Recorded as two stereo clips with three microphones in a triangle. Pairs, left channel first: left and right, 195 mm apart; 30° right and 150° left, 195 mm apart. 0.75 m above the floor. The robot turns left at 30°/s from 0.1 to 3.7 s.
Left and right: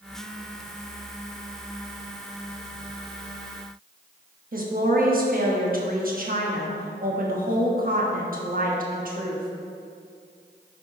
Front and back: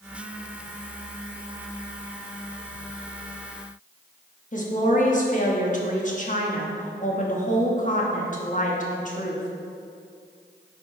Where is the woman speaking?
65° right, 1.2 m.